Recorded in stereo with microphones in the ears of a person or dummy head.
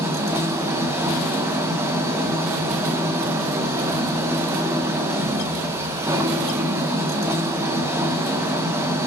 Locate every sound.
0.0 s an engine running: 15° right (ahead or behind), 0.9 m